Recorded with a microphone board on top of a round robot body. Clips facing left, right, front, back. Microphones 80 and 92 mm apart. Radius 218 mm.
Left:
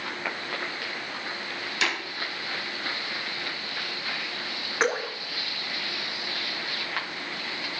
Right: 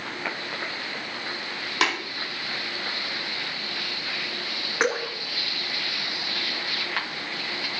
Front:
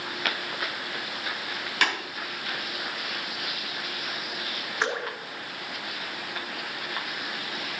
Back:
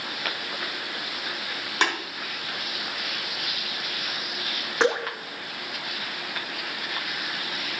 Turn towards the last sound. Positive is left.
turn(degrees=-170)